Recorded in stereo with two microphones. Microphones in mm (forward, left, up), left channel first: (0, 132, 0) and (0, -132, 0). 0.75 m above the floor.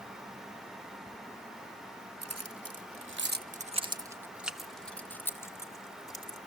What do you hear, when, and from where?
2.2 s keys jangling: 70° right (ahead or behind), 0.9 m; by 6.4 s 15° left (ahead or behind), 2 m